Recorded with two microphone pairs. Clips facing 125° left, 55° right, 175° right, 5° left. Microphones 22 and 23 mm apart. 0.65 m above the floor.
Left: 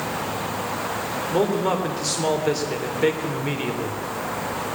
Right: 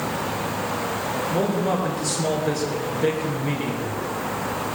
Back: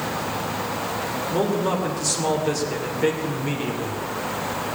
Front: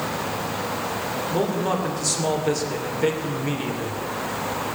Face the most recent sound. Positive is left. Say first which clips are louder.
# left 3 dB, back 1 dB
turn(degrees=95)